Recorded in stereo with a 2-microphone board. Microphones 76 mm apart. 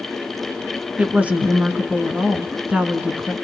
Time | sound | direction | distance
1.0 | a woman speaking | 15° right (ahead or behind) | 1.4 m